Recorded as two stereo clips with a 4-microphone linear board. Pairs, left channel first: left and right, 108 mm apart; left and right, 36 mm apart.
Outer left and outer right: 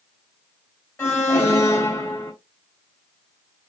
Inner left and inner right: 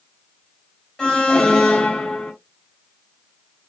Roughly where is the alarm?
Left.